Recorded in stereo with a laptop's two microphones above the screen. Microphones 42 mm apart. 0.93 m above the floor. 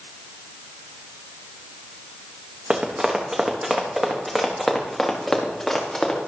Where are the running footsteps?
25° right (ahead or behind), 3 m; by 6.3 s 15° left (ahead or behind), 5 m.